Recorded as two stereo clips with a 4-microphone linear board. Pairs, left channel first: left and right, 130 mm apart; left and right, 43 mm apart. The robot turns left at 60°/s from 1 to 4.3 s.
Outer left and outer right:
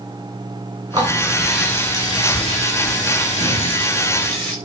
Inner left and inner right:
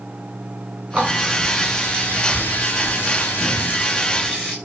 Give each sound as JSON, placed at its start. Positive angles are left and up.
{"t": 0.9, "sound": "a running tap", "azimuth_deg": -150, "distance_m": 9.0}